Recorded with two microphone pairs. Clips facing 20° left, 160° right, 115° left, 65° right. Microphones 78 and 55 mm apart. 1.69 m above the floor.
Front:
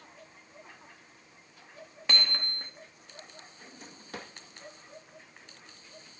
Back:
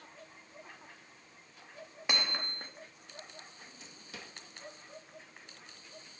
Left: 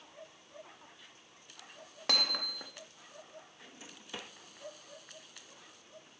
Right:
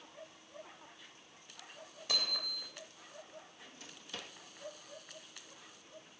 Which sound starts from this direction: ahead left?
A drawer, at 3.6 s.